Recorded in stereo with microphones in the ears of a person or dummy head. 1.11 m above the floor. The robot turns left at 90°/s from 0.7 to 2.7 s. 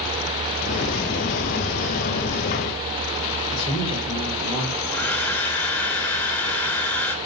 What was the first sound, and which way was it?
A man speaking, 30° left (ahead or behind).